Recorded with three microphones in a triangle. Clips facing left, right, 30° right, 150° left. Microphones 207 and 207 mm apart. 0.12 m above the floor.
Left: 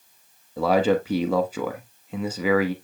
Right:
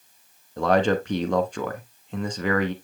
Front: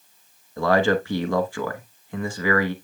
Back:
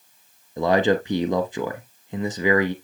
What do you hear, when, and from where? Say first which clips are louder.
0.6 s a man speaking: left 1 dB, back 1 dB; 165° left, 1.1 m